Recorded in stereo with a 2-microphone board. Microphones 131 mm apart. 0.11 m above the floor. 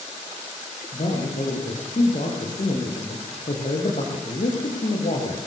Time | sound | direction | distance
0.9 | a man speaking | 65° left (ahead or behind) | 6 m